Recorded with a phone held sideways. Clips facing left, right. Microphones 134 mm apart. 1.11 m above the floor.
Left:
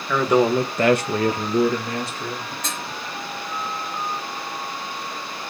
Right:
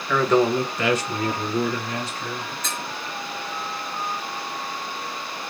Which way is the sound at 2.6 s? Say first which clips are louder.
Even; 80° left.